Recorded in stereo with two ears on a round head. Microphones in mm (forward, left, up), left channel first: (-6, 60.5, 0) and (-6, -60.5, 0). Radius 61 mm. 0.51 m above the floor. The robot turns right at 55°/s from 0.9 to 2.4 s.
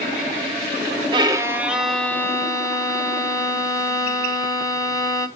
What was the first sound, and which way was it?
A violin, 40° right.